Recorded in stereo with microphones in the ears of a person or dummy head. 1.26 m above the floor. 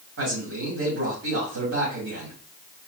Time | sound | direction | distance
0.2 | a man speaking | 80° right | 2.5 m